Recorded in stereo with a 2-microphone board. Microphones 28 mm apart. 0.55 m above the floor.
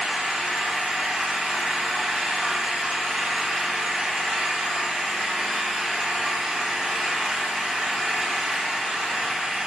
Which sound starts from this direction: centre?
An engine running, at 0.0 s.